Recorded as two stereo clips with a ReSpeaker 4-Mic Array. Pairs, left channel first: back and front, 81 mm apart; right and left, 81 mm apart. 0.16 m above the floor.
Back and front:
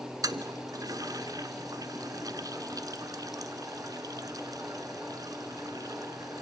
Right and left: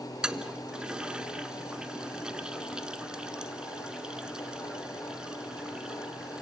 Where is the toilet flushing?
15° left, 1.2 m.